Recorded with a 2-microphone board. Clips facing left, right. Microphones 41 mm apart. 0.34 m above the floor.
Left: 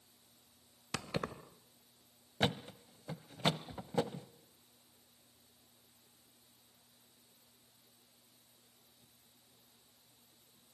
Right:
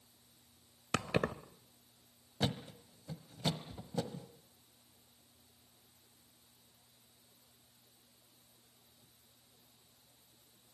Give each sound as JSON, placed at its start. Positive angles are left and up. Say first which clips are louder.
{"t": 0.9, "sound": "keys jangling", "louder": "right 5 dB", "side_deg": -45, "distance_m": 0.8}
{"t": 2.4, "sound": "a thud", "louder": "left 2 dB", "side_deg": 40, "distance_m": 1.0}